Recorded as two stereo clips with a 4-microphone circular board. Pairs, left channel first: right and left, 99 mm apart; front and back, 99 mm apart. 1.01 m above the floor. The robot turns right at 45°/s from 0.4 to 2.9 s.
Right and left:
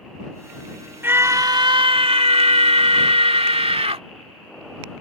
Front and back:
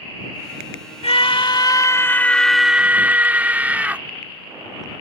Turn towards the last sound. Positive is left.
turn(degrees=105)